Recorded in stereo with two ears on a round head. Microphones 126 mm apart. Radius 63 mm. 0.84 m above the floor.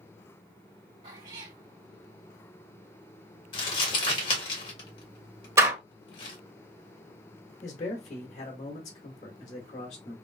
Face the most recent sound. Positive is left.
turn(degrees=50)  # may be behind; listen again after turning